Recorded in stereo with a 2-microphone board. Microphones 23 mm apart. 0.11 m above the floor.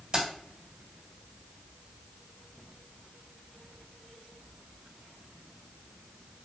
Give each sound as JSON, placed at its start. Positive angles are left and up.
{"t": 0.1, "sound": "keys jangling", "side_deg": -30, "distance_m": 1.5}